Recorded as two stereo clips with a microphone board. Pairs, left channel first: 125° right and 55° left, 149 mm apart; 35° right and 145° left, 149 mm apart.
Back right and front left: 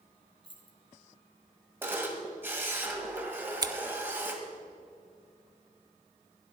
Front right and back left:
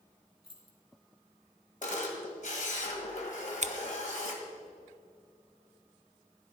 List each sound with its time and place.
0.4 s keys jangling: 170° right, 1.8 m
1.8 s a camera shutter: 20° right, 1.8 m
3.6 s scissors: 115° left, 0.6 m